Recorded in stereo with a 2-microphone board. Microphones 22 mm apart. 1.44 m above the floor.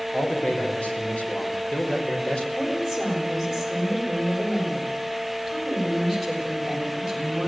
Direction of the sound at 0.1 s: 70° left (ahead or behind).